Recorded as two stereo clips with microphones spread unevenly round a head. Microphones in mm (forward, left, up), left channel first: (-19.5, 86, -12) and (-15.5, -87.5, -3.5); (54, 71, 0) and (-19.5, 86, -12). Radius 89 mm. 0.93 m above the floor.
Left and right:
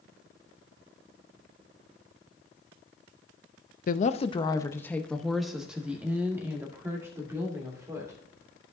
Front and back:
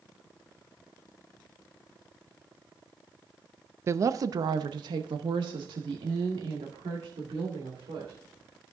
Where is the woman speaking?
125° left, 0.6 m; by 8.2 s 160° right, 2.5 m.